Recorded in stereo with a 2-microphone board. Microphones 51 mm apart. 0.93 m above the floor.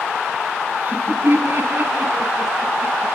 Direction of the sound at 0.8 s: 55° right (ahead or behind).